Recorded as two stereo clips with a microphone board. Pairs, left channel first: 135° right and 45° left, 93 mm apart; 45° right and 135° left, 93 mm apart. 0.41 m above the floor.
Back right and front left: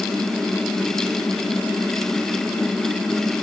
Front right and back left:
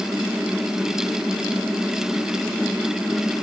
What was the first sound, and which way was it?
Only background noise.